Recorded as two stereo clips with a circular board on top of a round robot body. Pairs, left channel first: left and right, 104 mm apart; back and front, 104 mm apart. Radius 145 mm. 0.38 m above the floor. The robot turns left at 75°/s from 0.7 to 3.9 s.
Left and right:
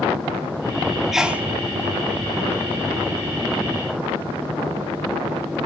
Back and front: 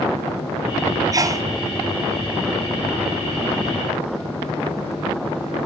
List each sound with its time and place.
1.1 s a sneeze: 5° right, 0.9 m; by 1.4 s 30° right, 0.9 m